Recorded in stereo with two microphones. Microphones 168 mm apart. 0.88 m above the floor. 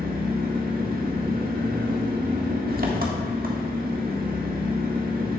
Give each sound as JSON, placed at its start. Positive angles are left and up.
{"t": 0.0, "sound": "an engine running", "side_deg": -65, "distance_m": 1.2}